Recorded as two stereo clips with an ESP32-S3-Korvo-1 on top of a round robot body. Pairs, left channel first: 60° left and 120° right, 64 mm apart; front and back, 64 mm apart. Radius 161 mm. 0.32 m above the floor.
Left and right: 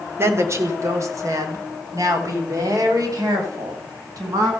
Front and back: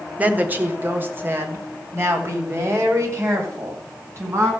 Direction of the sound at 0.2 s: 125° right.